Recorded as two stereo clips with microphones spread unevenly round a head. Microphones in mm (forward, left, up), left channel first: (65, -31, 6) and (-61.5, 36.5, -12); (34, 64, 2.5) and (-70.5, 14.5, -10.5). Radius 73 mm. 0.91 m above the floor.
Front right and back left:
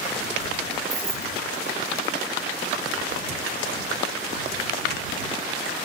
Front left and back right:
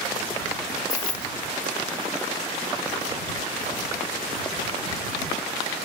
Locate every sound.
0.9 s keys jangling: 85° left